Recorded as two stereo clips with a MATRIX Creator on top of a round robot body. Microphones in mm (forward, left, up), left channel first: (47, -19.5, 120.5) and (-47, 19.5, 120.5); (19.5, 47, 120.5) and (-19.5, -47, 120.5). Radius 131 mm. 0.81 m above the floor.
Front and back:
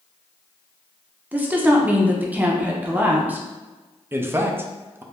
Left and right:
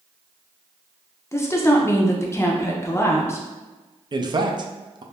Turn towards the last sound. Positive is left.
turn(degrees=-140)